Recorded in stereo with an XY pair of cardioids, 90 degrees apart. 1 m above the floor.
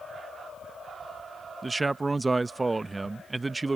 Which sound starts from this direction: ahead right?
A man speaking, at 1.6 s.